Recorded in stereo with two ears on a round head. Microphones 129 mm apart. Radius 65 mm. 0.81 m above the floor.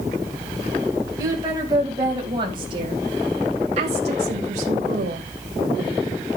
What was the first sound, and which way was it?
A woman speaking, 25° right (ahead or behind).